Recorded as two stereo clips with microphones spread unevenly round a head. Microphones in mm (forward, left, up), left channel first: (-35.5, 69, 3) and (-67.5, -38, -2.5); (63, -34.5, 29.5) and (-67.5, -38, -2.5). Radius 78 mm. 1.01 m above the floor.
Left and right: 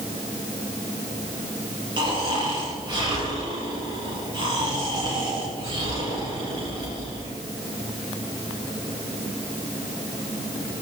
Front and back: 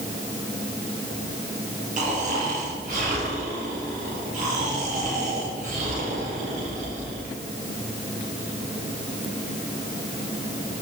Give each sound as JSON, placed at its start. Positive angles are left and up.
{"t": 2.0, "sound": "snoring", "azimuth_deg": -155, "distance_m": 5.5}